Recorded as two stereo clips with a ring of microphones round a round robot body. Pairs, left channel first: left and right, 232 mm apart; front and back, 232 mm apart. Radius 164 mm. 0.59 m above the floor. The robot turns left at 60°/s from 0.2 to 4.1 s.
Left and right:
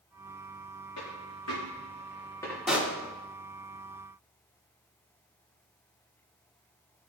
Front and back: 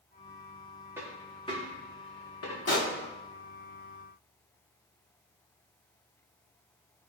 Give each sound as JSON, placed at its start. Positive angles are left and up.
{"t": 1.0, "sound": "a dropped coin", "azimuth_deg": 100, "distance_m": 3.5}
{"t": 2.7, "sound": "a pop", "azimuth_deg": 0, "distance_m": 1.8}